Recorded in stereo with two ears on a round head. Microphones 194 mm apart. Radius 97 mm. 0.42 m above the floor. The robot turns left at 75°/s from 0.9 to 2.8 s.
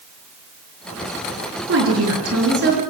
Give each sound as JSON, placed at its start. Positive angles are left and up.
{"t": 1.7, "sound": "a woman speaking", "azimuth_deg": -55, "distance_m": 7.5}